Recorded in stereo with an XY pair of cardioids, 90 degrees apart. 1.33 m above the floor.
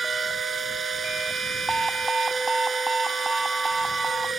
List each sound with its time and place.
0.0 s a machine running: 45° right
1.7 s an alarm: 20° right